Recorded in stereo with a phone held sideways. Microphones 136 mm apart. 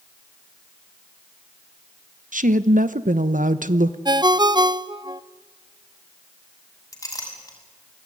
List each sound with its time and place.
2.3 s a woman speaking: 75° right (ahead or behind), 1.1 m
4.0 s a ringtone: 30° right (ahead or behind), 0.7 m
6.9 s a clink: 20° left (ahead or behind), 6.5 m